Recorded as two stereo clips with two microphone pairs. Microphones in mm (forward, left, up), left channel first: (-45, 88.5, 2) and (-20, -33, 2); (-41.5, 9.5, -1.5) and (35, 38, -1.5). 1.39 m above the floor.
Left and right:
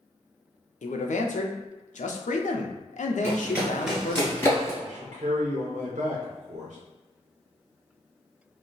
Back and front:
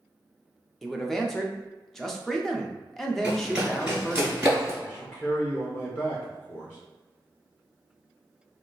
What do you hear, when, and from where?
0.8 s a man speaking: 110° left, 0.5 m
3.2 s running footsteps: 40° right, 1.4 m; by 4.7 s 80° left, 1.5 m
4.8 s a man speaking: 95° right, 0.7 m